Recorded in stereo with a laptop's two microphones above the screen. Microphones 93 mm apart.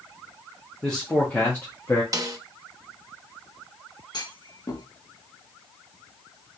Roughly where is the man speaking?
Centre.